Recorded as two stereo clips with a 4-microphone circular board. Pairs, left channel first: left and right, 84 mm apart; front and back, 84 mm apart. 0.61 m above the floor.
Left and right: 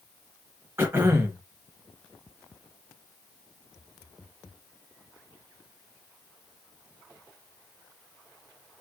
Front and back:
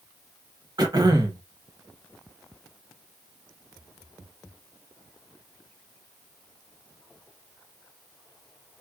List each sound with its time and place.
0.8 s throat clearing: 150° right, 0.8 m